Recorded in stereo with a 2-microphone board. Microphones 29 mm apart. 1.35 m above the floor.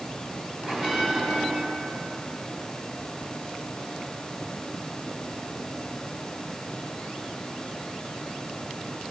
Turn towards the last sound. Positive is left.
turn(degrees=-20)  # may be behind; listen again after turning